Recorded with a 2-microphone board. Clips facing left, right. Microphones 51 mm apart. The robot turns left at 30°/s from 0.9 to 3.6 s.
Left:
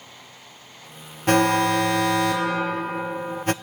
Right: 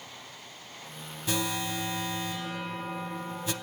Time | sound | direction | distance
1.3 | an alarm | 120° left | 0.8 m